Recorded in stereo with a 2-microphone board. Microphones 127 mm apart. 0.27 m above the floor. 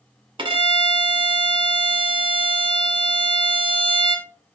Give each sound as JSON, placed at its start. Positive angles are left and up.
{"t": 0.4, "sound": "a violin", "side_deg": -40, "distance_m": 1.0}